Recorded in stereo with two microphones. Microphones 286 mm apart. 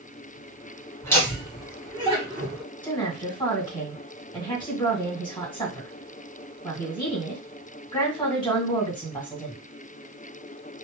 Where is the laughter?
10° left (ahead or behind), 2 m; by 2.6 s 30° right (ahead or behind), 1.5 m.